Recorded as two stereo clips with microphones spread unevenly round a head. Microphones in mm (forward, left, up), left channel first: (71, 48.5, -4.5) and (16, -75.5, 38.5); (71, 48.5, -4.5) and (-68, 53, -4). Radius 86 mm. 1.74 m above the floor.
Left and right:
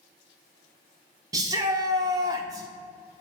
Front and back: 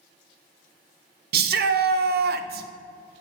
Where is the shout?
175° left, 0.8 m.